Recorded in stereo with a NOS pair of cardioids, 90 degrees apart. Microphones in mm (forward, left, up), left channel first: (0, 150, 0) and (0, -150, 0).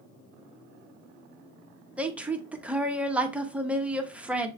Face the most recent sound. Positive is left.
turn(degrees=-5)